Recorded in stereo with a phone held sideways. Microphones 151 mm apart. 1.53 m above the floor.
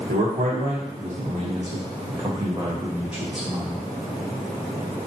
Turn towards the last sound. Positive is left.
turn(degrees=0)  # may be behind; listen again after turning